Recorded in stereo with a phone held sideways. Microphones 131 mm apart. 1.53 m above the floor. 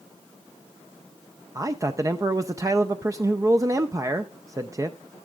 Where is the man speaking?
25° right (ahead or behind), 0.5 m.